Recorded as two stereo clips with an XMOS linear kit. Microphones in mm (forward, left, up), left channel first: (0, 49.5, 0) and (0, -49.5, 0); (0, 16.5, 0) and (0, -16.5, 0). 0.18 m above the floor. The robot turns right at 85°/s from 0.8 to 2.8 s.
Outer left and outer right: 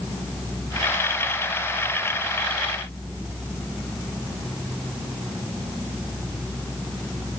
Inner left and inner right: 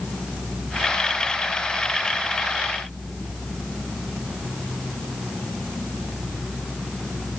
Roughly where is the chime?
No chime in this recording.